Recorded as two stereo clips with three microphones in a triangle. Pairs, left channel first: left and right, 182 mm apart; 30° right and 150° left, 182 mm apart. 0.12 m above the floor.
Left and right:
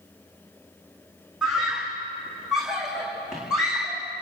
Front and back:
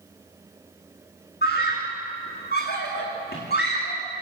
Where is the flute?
I don't hear a flute.